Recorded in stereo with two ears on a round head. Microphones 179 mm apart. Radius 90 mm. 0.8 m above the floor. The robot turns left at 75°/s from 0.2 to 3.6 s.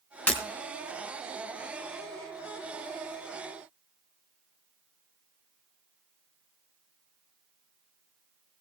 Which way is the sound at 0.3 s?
10° left (ahead or behind).